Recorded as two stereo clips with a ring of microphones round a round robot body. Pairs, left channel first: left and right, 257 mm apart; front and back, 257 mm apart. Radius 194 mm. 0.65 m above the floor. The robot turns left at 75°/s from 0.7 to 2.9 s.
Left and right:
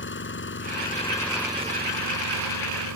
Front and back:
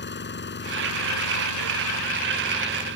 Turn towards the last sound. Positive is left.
turn(degrees=-120)